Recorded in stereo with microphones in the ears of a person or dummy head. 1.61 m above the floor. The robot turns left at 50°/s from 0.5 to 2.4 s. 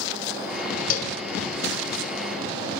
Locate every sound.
0.9 s a cowbell: 45° left (ahead or behind), 1.3 m; by 1.2 s 30° left (ahead or behind), 1.3 m